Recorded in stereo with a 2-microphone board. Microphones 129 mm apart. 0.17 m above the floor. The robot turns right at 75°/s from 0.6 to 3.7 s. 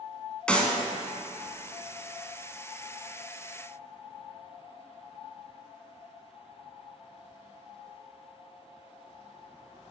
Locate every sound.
0.5 s a clap: 10° left (ahead or behind), 1.6 m; by 0.7 s 5° left (ahead or behind), 1.6 m